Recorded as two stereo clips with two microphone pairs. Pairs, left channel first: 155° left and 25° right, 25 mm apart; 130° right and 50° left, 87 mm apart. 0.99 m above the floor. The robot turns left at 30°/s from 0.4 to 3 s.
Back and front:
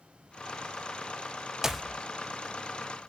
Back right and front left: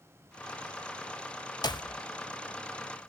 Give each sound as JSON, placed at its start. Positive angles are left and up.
{"t": 1.6, "sound": "a clap", "azimuth_deg": -95, "distance_m": 0.8}